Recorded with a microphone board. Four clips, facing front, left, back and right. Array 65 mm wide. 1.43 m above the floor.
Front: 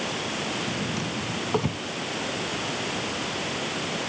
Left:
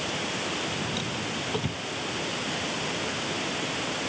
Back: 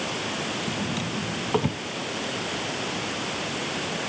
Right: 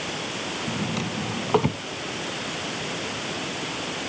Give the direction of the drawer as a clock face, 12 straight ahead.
3 o'clock.